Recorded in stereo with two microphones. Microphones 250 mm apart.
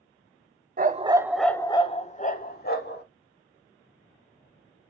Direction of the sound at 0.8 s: 40° right (ahead or behind).